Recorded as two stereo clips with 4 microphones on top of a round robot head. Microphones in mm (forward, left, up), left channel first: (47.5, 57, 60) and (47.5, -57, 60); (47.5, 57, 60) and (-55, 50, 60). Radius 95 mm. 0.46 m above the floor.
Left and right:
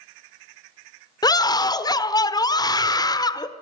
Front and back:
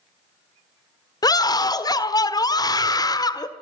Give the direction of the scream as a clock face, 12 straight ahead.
11 o'clock.